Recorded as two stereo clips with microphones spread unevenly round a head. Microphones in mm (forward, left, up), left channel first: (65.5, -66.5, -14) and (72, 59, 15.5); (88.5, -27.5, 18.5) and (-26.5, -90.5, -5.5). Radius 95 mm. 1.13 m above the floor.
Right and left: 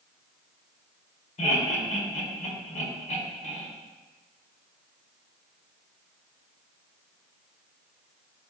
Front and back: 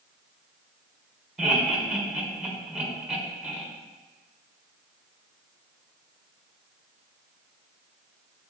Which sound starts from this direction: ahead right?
Laughter, at 1.4 s.